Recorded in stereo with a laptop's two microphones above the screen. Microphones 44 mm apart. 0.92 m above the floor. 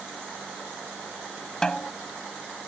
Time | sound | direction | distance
1.6 | a snare drum | 20° left (ahead or behind) | ?